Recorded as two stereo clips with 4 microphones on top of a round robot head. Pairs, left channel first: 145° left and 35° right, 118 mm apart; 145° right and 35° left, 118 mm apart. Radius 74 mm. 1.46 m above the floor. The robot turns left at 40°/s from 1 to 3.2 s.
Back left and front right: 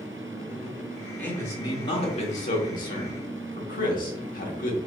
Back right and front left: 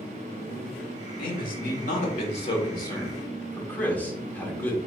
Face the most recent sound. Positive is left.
turn(degrees=140)